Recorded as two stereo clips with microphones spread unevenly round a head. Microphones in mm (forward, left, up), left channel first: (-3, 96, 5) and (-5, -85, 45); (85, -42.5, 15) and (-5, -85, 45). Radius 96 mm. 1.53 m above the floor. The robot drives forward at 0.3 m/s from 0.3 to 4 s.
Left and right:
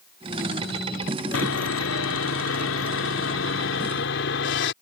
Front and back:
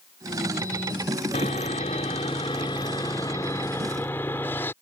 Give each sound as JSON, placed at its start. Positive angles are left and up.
{"t": 1.3, "sound": "sawing", "azimuth_deg": 85}